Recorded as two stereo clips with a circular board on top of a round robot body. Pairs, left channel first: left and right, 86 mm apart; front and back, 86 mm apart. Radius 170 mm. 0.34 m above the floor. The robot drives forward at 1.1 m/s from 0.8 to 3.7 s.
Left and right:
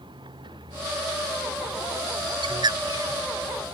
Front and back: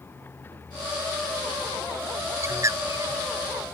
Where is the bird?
120° right; by 3.1 s 135° right.